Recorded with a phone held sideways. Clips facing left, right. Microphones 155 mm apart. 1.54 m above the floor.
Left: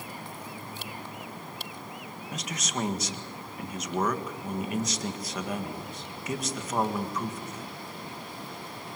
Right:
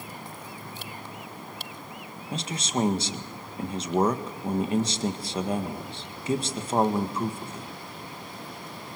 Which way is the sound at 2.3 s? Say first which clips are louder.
Right 6 dB; 30° right (ahead or behind).